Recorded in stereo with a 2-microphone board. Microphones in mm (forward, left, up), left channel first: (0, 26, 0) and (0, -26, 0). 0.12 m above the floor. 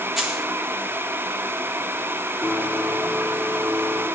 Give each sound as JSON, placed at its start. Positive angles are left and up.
{"t": 0.2, "sound": "a dropped coin", "side_deg": -10, "distance_m": 1.2}
{"t": 2.4, "sound": "a blender", "side_deg": -40, "distance_m": 2.5}